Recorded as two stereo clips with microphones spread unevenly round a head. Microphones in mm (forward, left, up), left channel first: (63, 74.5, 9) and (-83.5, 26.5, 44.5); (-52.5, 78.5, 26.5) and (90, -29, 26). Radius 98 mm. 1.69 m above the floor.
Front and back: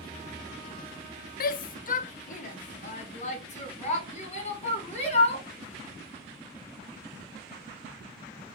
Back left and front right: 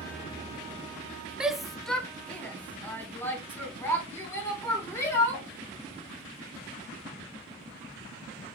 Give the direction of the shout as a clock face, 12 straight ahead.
10 o'clock.